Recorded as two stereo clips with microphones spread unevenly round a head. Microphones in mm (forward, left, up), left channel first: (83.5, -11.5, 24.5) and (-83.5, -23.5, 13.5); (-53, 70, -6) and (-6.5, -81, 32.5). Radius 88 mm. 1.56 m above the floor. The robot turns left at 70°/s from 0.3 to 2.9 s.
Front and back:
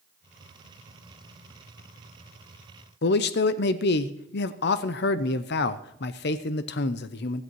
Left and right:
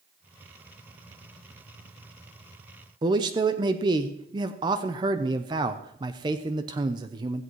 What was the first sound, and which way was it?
A man speaking, 15° right.